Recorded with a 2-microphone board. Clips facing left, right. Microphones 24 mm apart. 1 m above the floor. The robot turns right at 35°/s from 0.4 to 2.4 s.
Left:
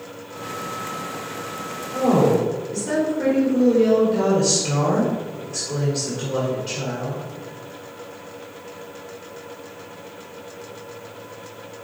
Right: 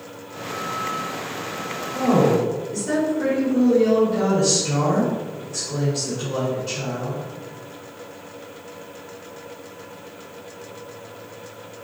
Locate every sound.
1.9 s a woman speaking: 35° left (ahead or behind), 3 m; by 7.3 s 20° left (ahead or behind), 3 m